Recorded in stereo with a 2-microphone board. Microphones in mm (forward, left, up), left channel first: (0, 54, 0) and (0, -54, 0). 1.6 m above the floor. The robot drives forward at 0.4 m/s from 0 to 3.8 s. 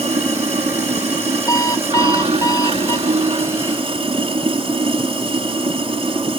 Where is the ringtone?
85° right.